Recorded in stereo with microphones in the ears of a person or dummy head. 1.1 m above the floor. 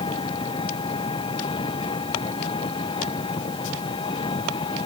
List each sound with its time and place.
0.0 s an engine running: 30° left (ahead or behind)